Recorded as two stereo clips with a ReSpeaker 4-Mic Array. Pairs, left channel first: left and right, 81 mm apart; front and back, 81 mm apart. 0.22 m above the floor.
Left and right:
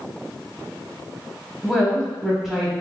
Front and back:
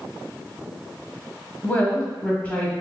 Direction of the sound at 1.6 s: 15° right.